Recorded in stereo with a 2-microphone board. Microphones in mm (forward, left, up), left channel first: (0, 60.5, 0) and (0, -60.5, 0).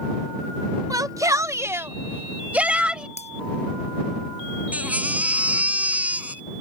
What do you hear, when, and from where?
0.9 s a shout: 30° right (ahead or behind); by 3.1 s 10° right (ahead or behind)
3.2 s breaking glass: 65° left (ahead or behind)
4.7 s a baby crying: 10° right (ahead or behind)